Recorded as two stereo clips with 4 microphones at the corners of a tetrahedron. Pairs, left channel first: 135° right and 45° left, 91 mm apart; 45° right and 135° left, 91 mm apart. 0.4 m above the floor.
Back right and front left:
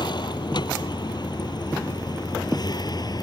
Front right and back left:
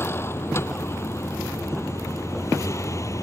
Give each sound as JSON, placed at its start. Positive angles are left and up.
{"t": 0.0, "sound": "a vehicle", "azimuth_deg": -105}